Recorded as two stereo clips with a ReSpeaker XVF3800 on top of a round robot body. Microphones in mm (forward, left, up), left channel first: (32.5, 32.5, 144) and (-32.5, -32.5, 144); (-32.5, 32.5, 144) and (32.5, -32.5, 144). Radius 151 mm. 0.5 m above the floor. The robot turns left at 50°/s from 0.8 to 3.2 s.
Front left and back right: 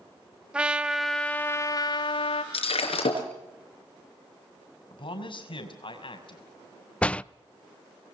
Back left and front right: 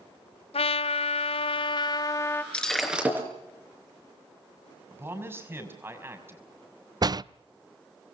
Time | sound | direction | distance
0.5 | a trumpet | 145° left | 1.0 m
2.5 | breaking glass | 55° left | 5.5 m
4.9 | a man speaking | 20° left | 6 m
7.0 | a door slam | 25° right | 0.6 m